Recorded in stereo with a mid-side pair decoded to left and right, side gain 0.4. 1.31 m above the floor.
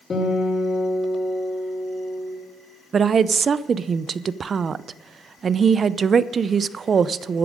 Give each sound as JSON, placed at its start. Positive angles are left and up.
{"t": 0.1, "sound": "a guitar", "azimuth_deg": 40, "distance_m": 5.0}
{"t": 2.9, "sound": "a woman speaking", "azimuth_deg": -50, "distance_m": 0.6}